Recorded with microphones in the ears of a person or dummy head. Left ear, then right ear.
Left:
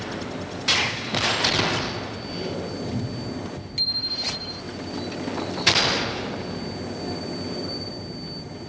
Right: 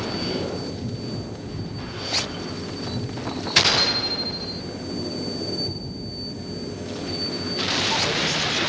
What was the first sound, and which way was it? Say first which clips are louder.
A bicycle bell: right 2 dB; 20° left (ahead or behind).